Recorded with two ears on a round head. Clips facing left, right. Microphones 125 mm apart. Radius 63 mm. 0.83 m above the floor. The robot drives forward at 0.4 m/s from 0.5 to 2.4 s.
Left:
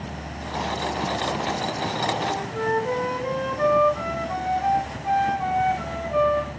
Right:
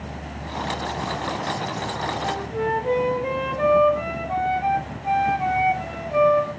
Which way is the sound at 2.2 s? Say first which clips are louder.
Right 1 dB; 20° right (ahead or behind).